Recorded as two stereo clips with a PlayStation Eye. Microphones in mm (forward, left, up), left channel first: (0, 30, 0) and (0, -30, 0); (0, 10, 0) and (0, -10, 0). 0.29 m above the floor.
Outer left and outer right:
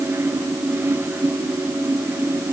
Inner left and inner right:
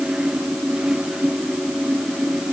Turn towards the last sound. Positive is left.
No sound to turn to.